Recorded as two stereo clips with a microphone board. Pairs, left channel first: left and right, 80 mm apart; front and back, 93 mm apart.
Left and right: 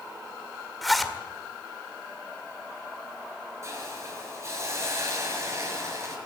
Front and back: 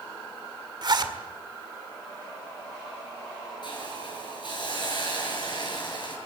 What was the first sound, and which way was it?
A zipper, straight behind.